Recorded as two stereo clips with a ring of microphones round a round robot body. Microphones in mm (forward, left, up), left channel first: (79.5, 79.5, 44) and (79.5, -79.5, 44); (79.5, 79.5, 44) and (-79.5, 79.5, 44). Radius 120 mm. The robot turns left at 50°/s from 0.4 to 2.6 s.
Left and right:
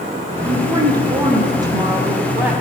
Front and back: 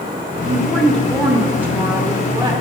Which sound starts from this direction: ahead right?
A woman speaking, at 0.4 s.